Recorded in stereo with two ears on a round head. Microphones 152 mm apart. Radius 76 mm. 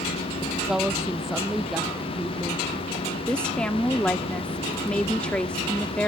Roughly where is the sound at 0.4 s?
Centre.